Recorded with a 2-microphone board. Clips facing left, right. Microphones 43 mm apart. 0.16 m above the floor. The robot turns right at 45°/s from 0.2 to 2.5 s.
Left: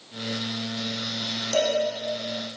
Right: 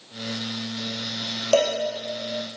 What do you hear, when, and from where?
1.5 s a cowbell: 75° right (ahead or behind), 2.5 m; by 1.8 s 70° right (ahead or behind), 2.5 m